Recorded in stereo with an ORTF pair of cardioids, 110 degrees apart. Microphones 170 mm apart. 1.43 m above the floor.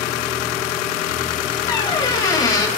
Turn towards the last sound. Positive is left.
turn(degrees=20)